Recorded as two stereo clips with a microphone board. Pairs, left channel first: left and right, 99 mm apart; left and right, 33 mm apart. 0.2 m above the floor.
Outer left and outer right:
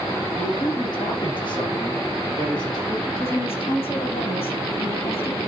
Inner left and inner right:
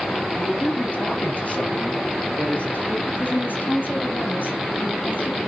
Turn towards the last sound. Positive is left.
turn(degrees=70)  # may be behind; listen again after turning